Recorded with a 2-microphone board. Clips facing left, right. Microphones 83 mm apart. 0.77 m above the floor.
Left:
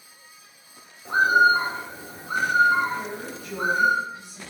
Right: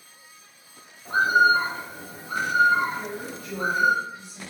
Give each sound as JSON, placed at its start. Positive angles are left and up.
{"t": 1.1, "sound": "a bird", "side_deg": 25, "distance_m": 0.9}
{"t": 2.9, "sound": "a woman speaking", "side_deg": 10, "distance_m": 1.1}